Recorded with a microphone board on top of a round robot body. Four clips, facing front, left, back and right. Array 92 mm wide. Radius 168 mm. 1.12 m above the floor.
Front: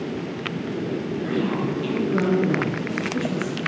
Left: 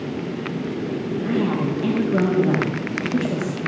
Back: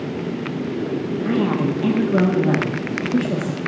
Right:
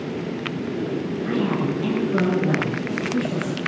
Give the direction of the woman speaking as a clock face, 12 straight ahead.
7 o'clock.